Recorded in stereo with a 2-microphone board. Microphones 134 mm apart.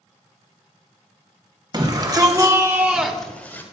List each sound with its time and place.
1.7 s a shout: 35° right (ahead or behind), 1.7 m; by 3.6 s 15° left (ahead or behind), 1.1 m